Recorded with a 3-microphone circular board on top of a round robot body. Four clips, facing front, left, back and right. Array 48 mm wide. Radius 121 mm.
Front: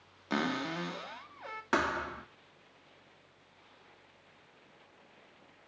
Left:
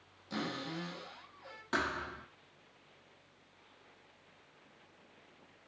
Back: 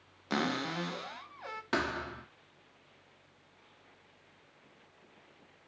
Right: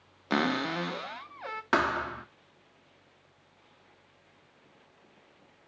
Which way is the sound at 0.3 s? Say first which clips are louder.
Right 11 dB, even; 90° right.